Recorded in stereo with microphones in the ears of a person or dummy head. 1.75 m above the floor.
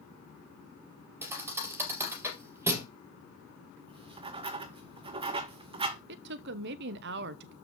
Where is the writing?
25° right (ahead or behind), 0.7 m.